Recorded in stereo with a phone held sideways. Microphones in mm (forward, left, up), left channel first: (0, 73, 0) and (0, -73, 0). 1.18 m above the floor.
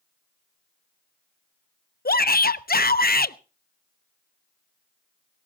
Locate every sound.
2.0 s a shout: 80° left, 0.6 m